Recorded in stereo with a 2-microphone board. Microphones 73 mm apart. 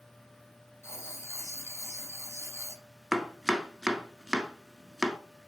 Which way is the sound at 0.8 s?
40° left (ahead or behind).